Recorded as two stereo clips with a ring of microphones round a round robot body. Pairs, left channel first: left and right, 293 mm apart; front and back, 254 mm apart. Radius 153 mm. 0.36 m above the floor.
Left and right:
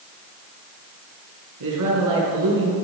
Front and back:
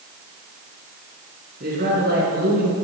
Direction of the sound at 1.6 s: 120° right.